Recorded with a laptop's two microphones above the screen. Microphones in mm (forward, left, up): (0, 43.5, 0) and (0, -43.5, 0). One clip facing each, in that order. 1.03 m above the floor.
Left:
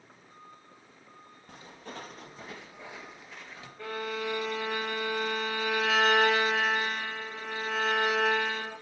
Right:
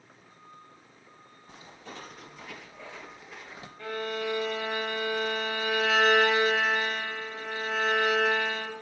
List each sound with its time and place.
1.5 s footsteps: 50° left (ahead or behind), 1.7 m; by 3.7 s 20° right (ahead or behind), 1.1 m
3.8 s a violin: 40° left (ahead or behind), 3.5 m